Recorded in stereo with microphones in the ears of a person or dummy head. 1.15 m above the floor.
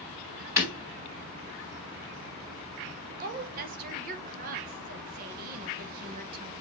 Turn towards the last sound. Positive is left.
turn(degrees=-45)  # may be behind; listen again after turning